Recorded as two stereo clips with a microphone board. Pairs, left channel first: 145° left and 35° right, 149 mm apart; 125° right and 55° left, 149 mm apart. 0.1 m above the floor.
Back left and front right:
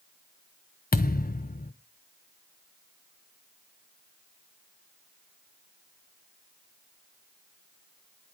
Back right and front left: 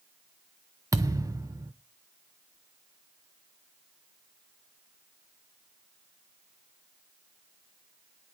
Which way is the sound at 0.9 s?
125° left.